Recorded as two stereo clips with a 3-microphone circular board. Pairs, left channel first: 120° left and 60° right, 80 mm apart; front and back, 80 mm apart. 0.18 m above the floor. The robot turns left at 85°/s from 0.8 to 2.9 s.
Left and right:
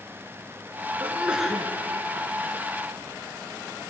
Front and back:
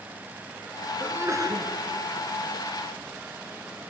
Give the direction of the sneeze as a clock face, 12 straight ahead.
4 o'clock.